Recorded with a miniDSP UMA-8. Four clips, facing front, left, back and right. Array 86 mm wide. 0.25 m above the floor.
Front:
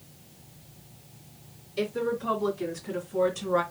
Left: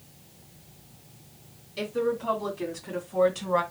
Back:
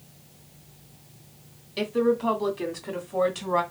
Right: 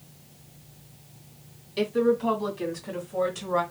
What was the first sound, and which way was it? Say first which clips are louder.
A woman speaking: right 5 dB, back 5 dB; 160° right.